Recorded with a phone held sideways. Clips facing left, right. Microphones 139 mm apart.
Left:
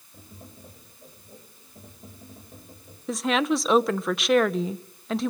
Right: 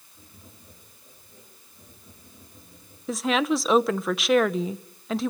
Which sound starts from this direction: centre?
A woman speaking, at 3.1 s.